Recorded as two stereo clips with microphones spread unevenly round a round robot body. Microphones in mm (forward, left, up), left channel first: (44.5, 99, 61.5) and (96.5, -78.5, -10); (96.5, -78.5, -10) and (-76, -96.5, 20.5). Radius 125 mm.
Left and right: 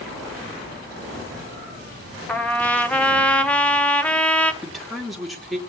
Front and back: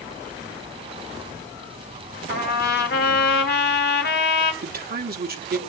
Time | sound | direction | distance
2.3 | a trumpet | 15° left | 1.3 m
4.6 | a man speaking | 150° right | 1.8 m